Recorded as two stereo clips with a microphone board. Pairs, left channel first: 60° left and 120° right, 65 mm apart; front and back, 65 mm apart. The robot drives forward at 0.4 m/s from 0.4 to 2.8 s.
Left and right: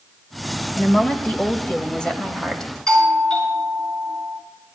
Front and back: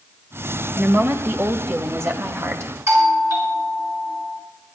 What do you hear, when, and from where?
0.8 s a woman speaking: 125° left, 1.8 m; by 2.7 s 140° left, 2.5 m
2.9 s a doorbell: 140° left, 7.5 m